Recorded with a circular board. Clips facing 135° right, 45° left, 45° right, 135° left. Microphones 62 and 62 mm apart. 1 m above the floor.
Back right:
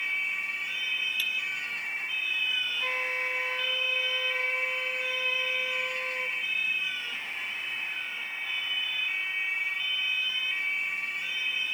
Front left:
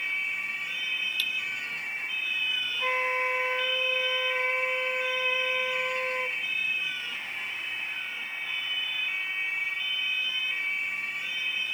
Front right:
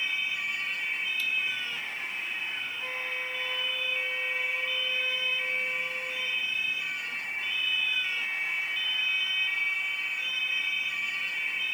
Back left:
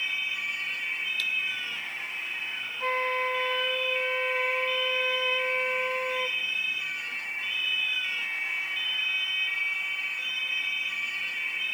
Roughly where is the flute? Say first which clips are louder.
Front left 7 dB, back left 12 dB; left.